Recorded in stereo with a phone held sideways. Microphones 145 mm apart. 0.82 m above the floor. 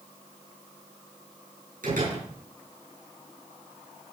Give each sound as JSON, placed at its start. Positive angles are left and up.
{"t": 1.8, "sound": "a door slam", "side_deg": -70, "distance_m": 8.0}